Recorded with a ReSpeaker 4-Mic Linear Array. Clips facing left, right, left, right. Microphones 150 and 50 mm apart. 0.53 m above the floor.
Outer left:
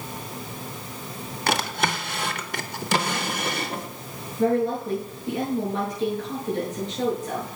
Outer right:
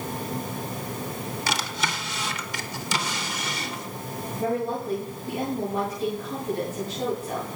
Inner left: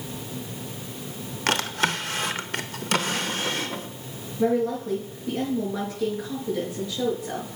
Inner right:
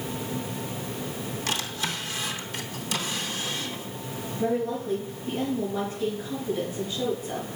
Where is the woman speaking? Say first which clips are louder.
Outer left 5 dB, inner left 4 dB; 80° left, 7 m.